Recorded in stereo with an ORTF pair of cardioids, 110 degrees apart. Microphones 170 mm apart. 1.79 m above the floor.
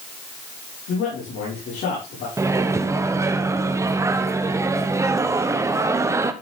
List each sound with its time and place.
0.9 s a man speaking: 70° left, 6 m
2.4 s a microwave: 20° right, 1.0 m